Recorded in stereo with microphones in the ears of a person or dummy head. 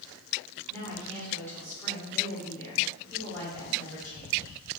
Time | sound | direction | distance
0.7 | a woman speaking | 15° left (ahead or behind) | 0.9 m